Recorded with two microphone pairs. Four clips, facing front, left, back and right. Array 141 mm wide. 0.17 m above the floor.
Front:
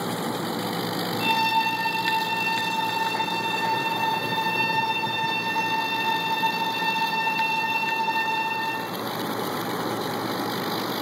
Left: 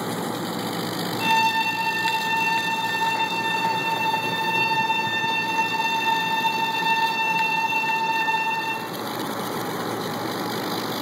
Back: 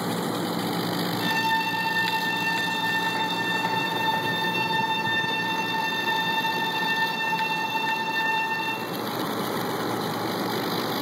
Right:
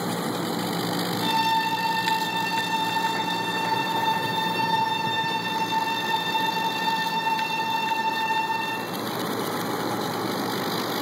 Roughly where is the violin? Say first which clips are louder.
Left 3 dB, front 5 dB; left.